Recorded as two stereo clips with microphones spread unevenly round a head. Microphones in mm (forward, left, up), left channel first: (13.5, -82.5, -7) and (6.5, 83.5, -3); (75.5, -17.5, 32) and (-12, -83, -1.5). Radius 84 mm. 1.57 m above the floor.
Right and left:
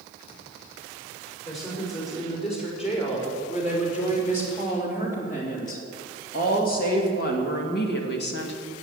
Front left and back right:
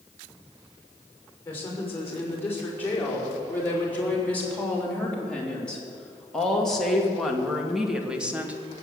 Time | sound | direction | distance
1.4 | a woman speaking | 35° right | 5.5 m